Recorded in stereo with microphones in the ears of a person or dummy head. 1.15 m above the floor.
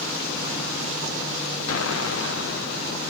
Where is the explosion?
70° left (ahead or behind), 1.0 m.